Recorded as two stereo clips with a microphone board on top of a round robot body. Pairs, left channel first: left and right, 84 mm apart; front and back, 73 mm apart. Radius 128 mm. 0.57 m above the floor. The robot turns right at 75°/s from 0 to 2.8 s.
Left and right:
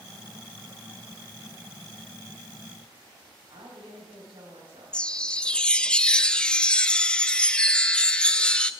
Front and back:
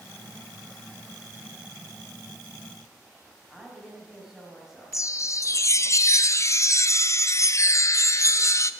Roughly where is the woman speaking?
Right.